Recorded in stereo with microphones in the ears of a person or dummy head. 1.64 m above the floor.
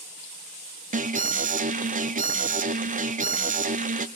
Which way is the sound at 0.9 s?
30° right (ahead or behind).